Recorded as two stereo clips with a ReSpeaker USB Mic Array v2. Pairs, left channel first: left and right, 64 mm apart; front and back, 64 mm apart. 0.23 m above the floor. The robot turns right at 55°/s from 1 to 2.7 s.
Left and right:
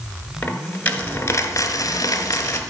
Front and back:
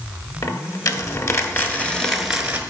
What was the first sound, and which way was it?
A dropped coin, 25° left.